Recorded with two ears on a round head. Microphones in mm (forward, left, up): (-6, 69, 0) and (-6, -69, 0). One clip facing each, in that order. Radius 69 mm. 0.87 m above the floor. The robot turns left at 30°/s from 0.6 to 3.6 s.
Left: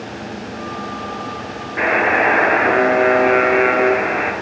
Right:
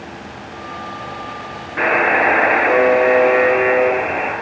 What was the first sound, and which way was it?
A buzzer, 155° left.